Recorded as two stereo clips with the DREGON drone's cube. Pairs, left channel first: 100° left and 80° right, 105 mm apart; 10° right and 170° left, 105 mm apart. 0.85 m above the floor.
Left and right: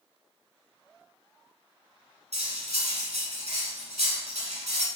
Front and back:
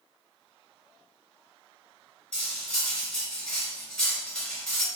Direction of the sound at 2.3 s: 95° right.